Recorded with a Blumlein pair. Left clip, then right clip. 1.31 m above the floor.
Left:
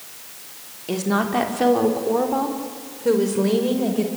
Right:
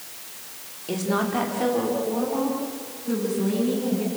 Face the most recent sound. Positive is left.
turn(degrees=45)